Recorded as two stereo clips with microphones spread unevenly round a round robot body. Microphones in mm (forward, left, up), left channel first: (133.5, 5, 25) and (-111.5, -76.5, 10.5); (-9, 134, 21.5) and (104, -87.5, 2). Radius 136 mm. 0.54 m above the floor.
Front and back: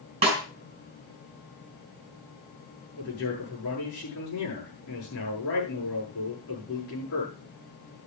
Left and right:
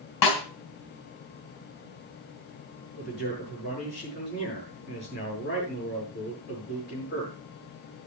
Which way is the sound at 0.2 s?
130° left.